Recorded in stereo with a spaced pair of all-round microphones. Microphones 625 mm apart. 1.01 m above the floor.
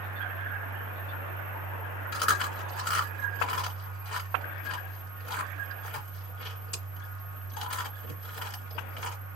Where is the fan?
60° left (ahead or behind), 1.5 m.